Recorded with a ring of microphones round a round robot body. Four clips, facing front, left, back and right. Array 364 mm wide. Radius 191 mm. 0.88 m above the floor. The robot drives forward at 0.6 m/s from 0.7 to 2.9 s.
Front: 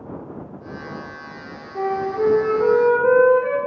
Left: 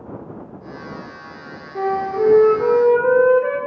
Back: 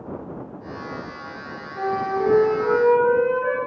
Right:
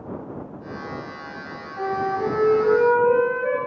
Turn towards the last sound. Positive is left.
turn(degrees=70)